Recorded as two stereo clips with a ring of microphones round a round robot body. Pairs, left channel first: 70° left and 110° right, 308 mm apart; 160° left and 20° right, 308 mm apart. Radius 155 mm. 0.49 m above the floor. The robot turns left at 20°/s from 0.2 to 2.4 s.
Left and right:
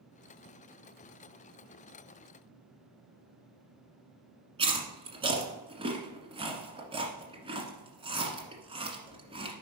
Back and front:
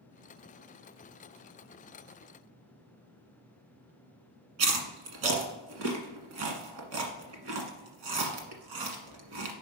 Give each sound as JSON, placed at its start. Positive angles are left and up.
{"t": 4.6, "sound": "chewing", "azimuth_deg": -40, "distance_m": 1.5}